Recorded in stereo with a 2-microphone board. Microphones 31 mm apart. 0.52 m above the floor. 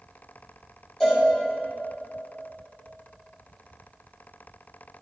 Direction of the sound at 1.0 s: 10° left (ahead or behind).